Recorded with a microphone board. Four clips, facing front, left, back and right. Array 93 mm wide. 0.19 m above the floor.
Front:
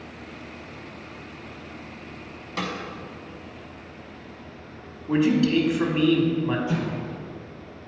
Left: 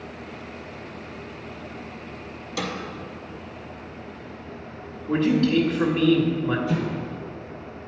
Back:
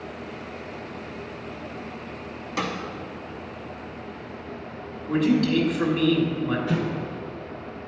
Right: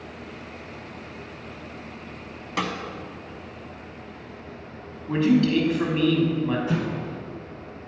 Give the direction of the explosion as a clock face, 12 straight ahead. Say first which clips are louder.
Even, back 1 dB; 4 o'clock.